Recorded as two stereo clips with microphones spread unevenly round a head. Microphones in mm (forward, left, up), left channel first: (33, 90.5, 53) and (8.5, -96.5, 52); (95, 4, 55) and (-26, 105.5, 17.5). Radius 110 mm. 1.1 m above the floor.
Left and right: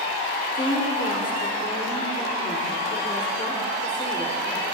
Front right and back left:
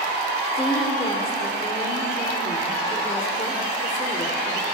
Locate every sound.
0.6 s a woman speaking: 15° left, 3 m